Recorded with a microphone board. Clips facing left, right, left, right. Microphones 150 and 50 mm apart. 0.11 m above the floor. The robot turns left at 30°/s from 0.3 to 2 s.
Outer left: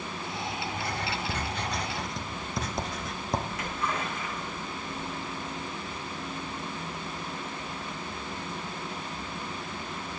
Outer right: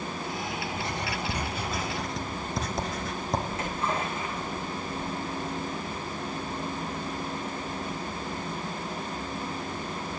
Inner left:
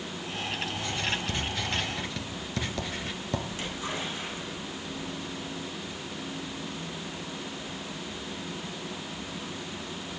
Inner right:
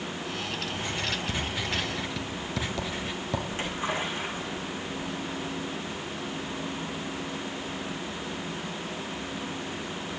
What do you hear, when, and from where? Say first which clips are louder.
0.7 s writing: outer right 1 dB, even; 25° right (ahead or behind), 1.6 m; by 3.4 s centre (ahead or behind), 1.6 m
3.5 s a splash: outer right 3 dB, inner right 4 dB; 30° right (ahead or behind), 9.5 m